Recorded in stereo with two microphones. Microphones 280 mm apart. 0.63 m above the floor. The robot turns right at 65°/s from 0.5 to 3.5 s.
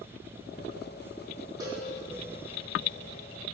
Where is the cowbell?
15° right (ahead or behind), 1.3 m; by 1.9 s 5° right (ahead or behind), 1.3 m.